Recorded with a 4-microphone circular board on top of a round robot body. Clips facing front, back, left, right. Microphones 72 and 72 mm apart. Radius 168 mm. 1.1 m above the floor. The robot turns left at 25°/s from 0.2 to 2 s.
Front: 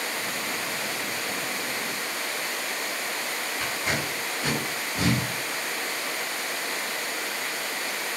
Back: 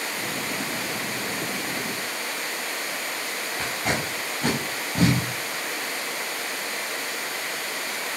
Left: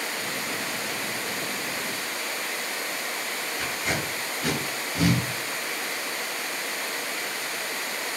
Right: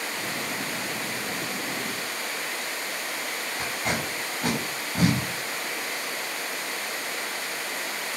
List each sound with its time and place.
3.6 s tape being pulled: 140° right, 5.5 m